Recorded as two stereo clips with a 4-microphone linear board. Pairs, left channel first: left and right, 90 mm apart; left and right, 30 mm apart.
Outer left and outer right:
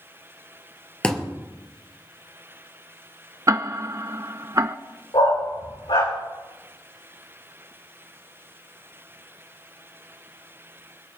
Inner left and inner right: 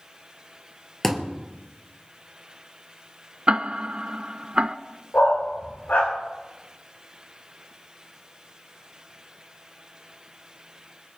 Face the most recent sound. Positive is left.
turn(degrees=70)  # may be behind; listen again after turning